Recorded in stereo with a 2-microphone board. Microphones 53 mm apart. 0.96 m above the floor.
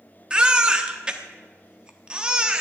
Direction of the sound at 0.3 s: 20° right (ahead or behind).